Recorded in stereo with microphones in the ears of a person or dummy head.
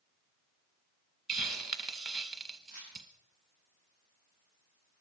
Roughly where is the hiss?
Centre.